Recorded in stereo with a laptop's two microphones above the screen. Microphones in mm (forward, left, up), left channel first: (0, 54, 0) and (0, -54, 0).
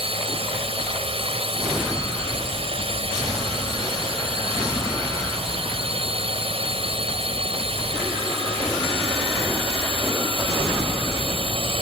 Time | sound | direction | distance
0.0 | a drone | 60° right (ahead or behind) | ?